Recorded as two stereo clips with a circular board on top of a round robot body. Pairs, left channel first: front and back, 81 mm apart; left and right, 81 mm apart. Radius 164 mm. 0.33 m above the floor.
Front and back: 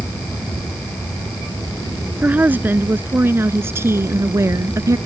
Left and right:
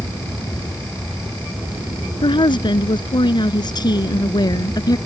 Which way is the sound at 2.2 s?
110° left.